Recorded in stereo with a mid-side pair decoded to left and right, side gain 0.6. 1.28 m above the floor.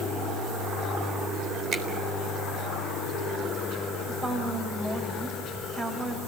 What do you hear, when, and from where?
1.7 s a finger snap: 40° right, 4 m
4.1 s a woman speaking: 20° right, 5 m